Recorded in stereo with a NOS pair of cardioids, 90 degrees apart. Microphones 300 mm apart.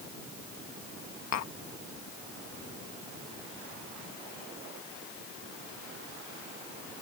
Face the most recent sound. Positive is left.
turn(degrees=60)